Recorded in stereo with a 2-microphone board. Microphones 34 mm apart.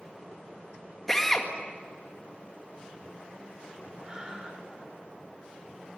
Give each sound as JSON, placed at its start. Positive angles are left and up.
{"t": 1.1, "sound": "a drill", "side_deg": 10, "distance_m": 2.0}
{"t": 4.0, "sound": "breathing", "side_deg": -20, "distance_m": 3.5}